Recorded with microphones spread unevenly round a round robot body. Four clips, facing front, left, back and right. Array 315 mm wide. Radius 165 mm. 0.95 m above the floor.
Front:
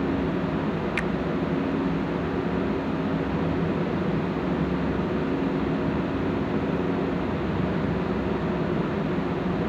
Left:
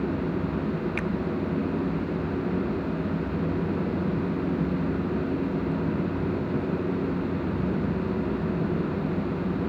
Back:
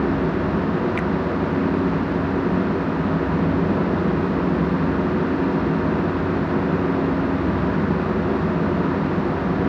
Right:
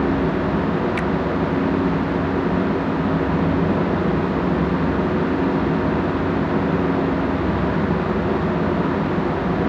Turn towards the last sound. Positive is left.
turn(degrees=-15)